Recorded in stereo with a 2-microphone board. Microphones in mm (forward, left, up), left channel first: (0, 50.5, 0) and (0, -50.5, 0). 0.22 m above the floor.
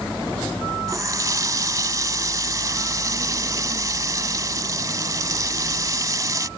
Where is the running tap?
35° right (ahead or behind).